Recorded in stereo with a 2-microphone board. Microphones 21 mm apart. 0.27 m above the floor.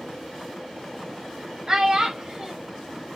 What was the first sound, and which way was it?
A child speaking, 30° right (ahead or behind).